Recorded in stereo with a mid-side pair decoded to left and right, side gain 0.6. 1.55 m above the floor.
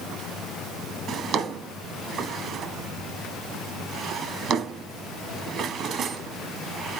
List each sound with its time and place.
1.1 s a drawer: 50° right, 1.9 m